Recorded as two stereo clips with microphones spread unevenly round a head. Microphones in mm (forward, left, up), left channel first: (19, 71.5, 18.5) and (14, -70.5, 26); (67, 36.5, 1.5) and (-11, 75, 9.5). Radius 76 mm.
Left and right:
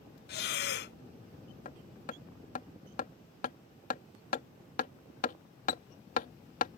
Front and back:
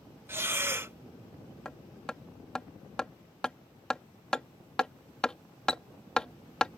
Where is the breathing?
90° left.